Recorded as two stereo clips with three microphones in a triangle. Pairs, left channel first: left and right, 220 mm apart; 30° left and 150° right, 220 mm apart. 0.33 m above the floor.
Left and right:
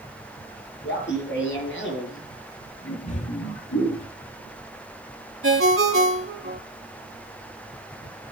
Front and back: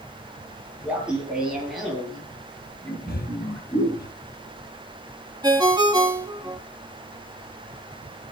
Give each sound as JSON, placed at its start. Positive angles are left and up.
{"t": 0.8, "sound": "laughter", "azimuth_deg": 125, "distance_m": 7.5}
{"t": 3.1, "sound": "breathing", "azimuth_deg": 45, "distance_m": 0.6}
{"t": 5.4, "sound": "a ringtone", "azimuth_deg": -75, "distance_m": 2.5}